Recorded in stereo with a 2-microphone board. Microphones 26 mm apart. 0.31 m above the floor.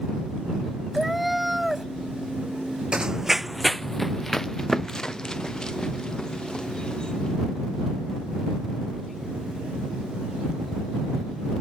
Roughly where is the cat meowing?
Centre.